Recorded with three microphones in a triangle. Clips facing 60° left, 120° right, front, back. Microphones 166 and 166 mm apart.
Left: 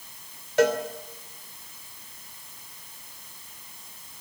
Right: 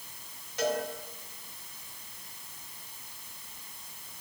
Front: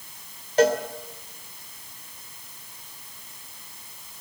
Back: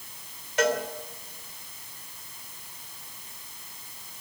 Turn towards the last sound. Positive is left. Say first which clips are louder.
# left 9 dB, front 6 dB
turn(degrees=55)